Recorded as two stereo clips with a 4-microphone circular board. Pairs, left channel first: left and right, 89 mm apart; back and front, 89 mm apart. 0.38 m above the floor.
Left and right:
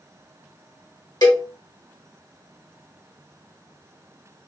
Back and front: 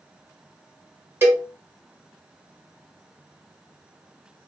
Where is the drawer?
I don't hear a drawer.